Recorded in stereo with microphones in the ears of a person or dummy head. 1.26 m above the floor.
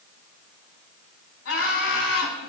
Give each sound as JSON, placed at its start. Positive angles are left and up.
{"t": 1.4, "sound": "laughter", "side_deg": 80, "distance_m": 5.0}